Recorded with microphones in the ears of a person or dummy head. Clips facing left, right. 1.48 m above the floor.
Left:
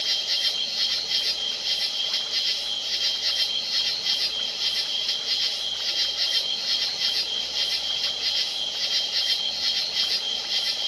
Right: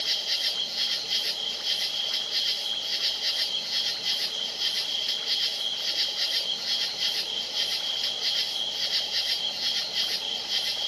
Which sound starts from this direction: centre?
An insect, at 0.0 s.